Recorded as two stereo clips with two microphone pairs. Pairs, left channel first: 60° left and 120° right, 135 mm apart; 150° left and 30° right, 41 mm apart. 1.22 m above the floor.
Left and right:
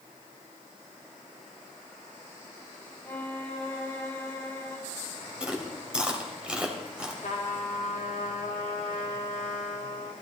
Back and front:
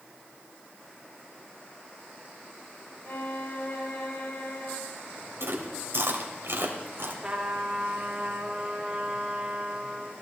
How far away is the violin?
About 2.5 m.